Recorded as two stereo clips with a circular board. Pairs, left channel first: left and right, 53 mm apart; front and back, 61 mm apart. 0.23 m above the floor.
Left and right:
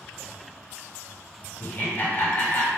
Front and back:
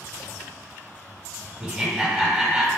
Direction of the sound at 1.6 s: 110° left.